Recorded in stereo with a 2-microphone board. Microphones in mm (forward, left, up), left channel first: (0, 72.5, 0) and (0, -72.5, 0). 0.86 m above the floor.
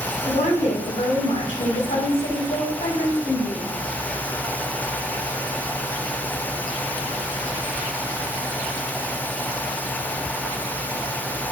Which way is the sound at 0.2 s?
75° left (ahead or behind).